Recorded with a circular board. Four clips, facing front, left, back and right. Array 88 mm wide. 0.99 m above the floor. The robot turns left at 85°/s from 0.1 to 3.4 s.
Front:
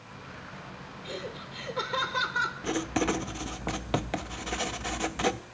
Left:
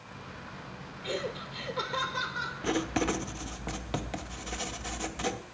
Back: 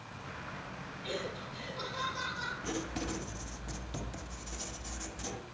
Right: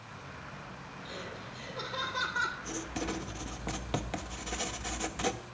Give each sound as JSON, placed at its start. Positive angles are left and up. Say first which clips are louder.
{"t": 1.0, "sound": "laughter", "louder": "left 10 dB, even", "azimuth_deg": 95, "distance_m": 3.0}
{"t": 2.6, "sound": "writing", "louder": "left 8 dB, front 8 dB", "azimuth_deg": 65, "distance_m": 0.9}